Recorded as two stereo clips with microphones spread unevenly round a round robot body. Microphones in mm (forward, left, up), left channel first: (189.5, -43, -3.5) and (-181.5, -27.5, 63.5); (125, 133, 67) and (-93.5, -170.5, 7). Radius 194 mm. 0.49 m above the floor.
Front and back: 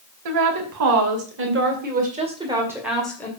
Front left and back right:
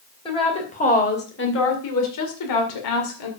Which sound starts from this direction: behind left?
A woman speaking, at 0.2 s.